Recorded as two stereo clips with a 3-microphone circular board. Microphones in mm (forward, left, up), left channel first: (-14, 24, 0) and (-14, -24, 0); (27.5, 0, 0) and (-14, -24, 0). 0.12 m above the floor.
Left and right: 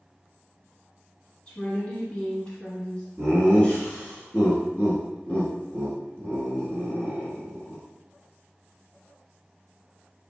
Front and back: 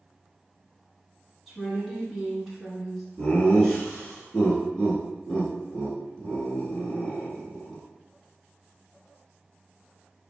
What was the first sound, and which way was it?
A woman speaking, 135° left.